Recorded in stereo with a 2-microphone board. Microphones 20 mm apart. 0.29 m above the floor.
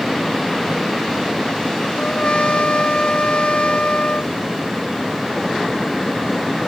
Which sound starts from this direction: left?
A trumpet, at 2.0 s.